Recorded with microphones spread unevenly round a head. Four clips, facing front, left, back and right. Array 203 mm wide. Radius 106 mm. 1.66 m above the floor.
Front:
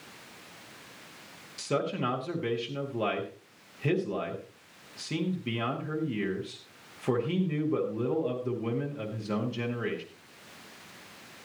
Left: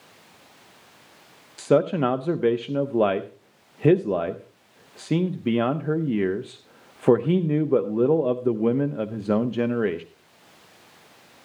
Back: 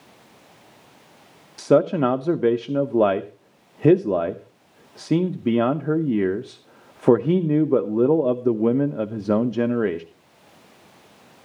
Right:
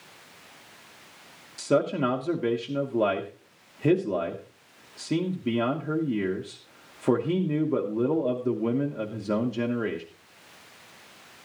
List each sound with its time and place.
1.6 s a man speaking: 155° left, 0.8 m